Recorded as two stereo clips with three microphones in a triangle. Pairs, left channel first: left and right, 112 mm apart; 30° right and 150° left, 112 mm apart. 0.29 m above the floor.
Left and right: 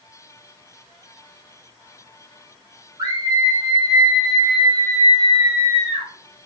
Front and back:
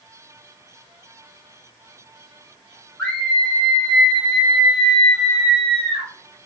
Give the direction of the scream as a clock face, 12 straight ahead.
3 o'clock.